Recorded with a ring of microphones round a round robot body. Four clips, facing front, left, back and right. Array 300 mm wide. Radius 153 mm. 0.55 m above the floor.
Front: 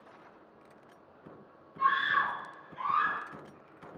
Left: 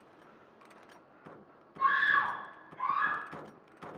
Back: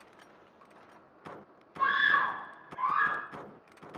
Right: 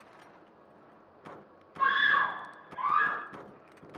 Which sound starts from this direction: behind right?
A scream, at 1.8 s.